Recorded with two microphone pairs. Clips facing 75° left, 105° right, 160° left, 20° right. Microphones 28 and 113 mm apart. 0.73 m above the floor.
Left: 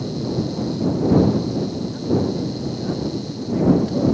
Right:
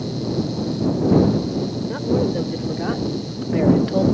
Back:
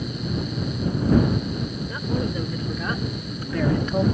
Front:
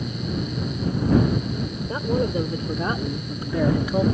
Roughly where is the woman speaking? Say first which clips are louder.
Right 2 dB, front 5 dB; right.